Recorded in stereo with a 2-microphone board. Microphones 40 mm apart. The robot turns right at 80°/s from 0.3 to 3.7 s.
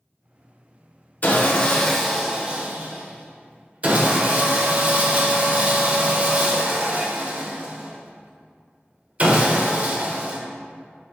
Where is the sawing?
115° left, 0.7 m; by 10.4 s 50° right, 0.7 m.